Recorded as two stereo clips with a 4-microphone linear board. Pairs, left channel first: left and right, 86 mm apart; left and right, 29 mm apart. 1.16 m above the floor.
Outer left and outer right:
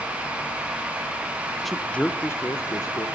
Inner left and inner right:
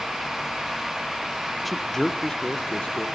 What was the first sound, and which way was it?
A man speaking, centre (ahead or behind).